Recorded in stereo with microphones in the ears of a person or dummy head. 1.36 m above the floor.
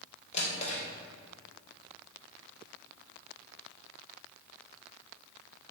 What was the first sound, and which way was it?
A drawer, 35° left (ahead or behind).